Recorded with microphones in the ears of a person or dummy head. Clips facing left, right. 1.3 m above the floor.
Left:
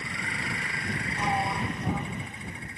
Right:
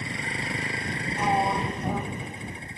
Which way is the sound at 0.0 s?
25° right (ahead or behind).